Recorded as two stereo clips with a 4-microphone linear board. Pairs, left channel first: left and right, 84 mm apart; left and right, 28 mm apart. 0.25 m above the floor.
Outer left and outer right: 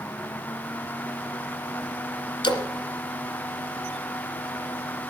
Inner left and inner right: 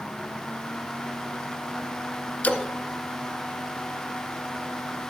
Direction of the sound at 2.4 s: 70° left (ahead or behind).